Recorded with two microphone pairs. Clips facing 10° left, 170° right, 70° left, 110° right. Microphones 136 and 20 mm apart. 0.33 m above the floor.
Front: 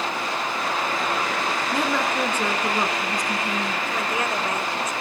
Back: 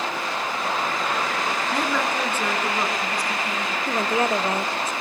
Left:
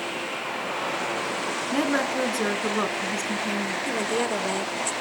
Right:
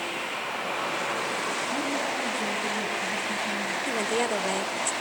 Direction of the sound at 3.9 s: 170° left.